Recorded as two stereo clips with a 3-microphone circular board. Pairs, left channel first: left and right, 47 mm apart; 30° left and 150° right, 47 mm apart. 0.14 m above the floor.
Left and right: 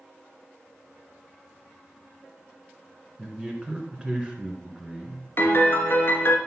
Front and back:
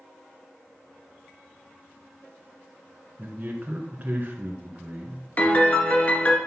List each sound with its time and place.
3.2 s a man speaking: 150° right, 1.4 m
5.4 s a piano: 75° left, 1.7 m